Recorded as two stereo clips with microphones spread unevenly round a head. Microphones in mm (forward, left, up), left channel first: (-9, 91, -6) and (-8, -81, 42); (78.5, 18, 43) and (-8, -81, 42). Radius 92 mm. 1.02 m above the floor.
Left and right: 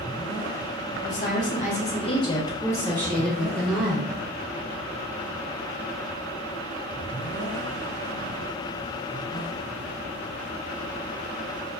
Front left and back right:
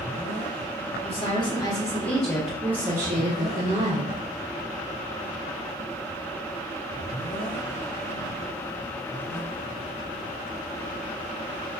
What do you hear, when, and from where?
1.0 s a woman speaking: 85° left, 0.9 m; by 4.1 s straight behind, 1.3 m